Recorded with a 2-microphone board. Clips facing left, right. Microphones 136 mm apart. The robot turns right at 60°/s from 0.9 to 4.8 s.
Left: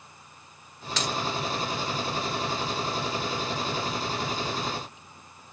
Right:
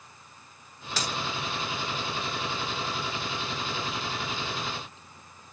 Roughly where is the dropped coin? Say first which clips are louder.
Left 2 dB; centre.